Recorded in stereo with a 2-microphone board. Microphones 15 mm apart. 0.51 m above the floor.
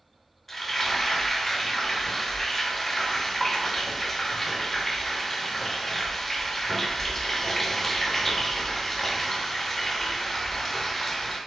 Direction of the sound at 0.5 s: 20° left (ahead or behind).